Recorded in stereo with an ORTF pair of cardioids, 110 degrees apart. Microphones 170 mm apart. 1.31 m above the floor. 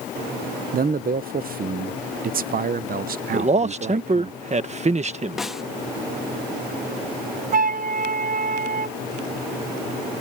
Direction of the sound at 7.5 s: 55° right.